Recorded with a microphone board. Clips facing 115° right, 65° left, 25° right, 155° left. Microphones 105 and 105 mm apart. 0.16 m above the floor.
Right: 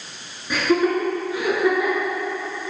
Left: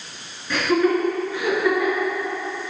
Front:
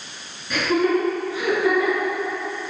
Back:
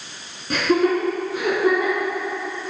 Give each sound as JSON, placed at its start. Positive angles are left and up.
{"t": 0.5, "sound": "laughter", "azimuth_deg": 175, "distance_m": 2.0}